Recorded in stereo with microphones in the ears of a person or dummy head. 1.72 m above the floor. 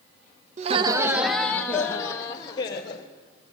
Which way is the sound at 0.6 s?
35° right (ahead or behind).